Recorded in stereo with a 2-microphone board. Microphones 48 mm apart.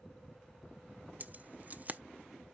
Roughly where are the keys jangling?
Right.